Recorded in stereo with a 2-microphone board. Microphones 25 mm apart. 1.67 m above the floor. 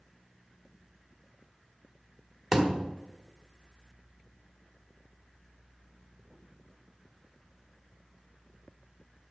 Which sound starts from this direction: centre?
A thud, at 2.5 s.